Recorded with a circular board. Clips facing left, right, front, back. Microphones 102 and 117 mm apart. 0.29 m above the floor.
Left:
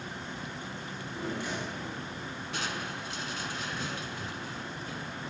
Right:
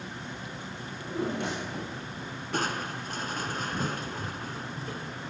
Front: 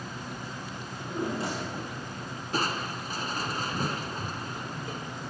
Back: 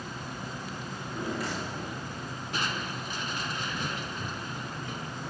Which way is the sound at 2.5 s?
50° right.